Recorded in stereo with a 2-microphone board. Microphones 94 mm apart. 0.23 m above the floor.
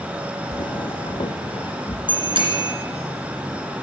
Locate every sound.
0.5 s footsteps: 45° left (ahead or behind), 0.5 m; by 2.0 s 50° left (ahead or behind), 1.4 m
2.1 s a bicycle bell: 60° right (ahead or behind), 2.5 m